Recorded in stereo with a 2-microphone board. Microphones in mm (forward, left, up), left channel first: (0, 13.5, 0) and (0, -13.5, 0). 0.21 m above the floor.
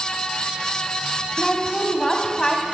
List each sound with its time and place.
1.4 s a woman speaking: 20° left (ahead or behind), 1.7 m